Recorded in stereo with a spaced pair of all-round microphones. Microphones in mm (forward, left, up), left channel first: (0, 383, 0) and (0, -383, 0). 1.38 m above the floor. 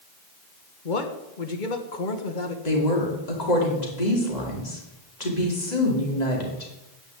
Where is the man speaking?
85° left, 1.5 m.